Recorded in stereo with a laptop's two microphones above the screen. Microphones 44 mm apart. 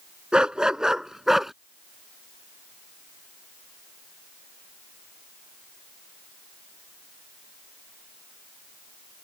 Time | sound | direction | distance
0.3 | a dog barking | 20° right (ahead or behind) | ?